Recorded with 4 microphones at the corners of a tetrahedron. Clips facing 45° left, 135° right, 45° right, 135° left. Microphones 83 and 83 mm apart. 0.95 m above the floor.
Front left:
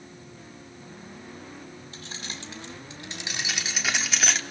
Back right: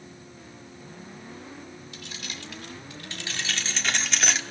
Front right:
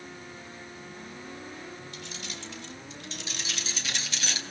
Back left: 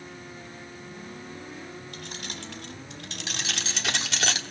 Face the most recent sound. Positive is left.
turn(degrees=135)